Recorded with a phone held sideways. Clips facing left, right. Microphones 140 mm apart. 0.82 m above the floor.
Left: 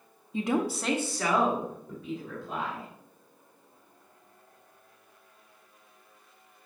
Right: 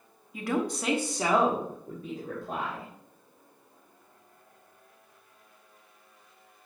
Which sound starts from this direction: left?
A woman speaking, at 0.3 s.